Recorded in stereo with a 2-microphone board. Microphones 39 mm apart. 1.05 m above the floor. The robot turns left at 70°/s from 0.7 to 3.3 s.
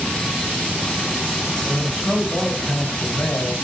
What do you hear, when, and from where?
1.6 s a man speaking: 150° right, 2 m; by 3.5 s 90° left, 2 m